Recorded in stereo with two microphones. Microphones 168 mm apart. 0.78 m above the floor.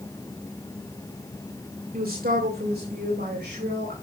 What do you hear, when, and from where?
1.9 s a man speaking: 60° right (ahead or behind), 3 m; by 3.9 s 80° right, 4 m